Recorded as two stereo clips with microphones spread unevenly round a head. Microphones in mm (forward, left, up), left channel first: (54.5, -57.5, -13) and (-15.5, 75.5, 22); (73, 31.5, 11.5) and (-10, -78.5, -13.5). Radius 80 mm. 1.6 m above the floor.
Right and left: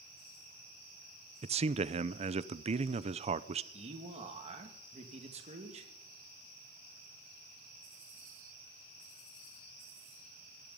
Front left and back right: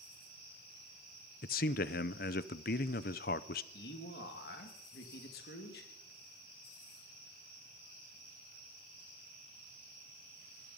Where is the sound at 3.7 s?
70° left, 2 m.